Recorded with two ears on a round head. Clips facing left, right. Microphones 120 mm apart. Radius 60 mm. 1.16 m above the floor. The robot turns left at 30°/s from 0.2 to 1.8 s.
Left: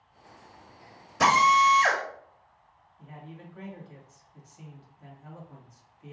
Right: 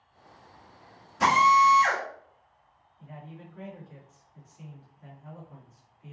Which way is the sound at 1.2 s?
70° left (ahead or behind).